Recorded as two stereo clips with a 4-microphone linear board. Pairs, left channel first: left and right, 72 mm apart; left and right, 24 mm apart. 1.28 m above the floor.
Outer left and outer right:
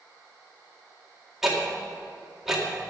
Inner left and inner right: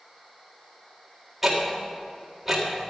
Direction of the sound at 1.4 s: 5° right (ahead or behind).